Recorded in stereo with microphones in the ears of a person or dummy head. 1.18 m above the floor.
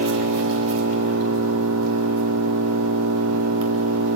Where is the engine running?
75° right (ahead or behind), 2.5 m.